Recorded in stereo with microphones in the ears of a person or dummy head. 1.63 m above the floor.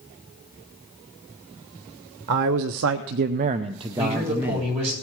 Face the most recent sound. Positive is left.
turn(degrees=-35)  # may be behind; listen again after turning